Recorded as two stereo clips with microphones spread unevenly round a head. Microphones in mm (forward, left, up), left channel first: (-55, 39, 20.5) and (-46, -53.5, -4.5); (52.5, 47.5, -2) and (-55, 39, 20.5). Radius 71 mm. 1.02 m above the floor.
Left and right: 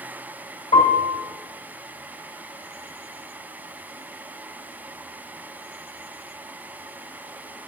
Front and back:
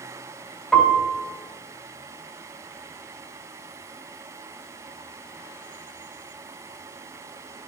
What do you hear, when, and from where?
0.7 s a piano: 90° left, 3 m